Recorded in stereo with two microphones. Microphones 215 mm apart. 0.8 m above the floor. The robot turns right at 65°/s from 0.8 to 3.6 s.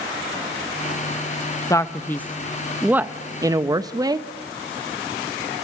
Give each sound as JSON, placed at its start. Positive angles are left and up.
{"t": 1.7, "sound": "a man speaking", "side_deg": 15, "distance_m": 0.7}